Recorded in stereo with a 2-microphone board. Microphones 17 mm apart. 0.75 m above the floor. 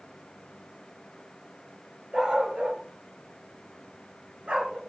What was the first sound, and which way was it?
A dog barking, 60° right (ahead or behind).